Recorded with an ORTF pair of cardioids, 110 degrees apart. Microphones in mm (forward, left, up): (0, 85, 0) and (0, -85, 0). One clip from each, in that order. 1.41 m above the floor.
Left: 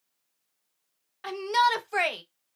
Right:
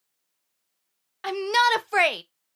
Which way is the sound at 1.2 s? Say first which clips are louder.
Right 3 dB; 25° right.